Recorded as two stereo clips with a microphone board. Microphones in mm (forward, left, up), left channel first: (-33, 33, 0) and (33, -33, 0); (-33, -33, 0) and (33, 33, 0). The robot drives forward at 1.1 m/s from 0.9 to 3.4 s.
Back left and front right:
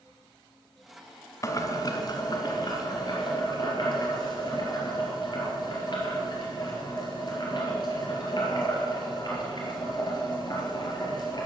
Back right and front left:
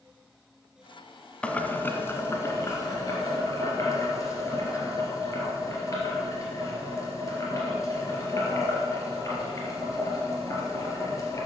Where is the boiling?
155° left, 1.2 m; by 11.5 s 175° left, 3 m.